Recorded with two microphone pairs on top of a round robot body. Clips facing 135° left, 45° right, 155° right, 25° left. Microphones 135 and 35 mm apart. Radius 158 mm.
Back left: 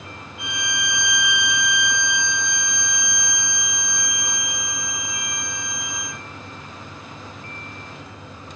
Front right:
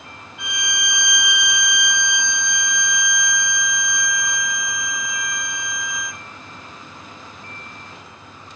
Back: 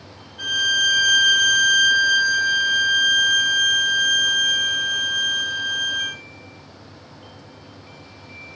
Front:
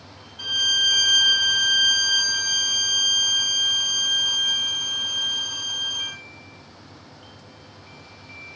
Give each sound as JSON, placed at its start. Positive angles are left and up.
{"t": 0.4, "sound": "a violin", "azimuth_deg": -150, "distance_m": 1.2}